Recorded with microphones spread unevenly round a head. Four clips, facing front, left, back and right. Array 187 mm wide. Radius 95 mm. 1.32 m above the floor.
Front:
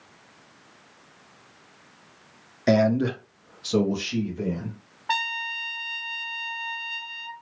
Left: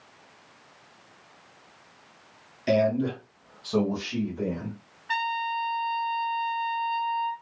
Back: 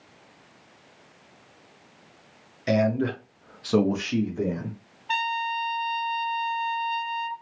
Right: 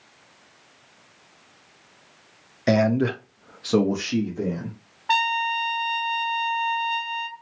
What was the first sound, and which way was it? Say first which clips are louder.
A man speaking: right 3 dB, front 3 dB; 40° right.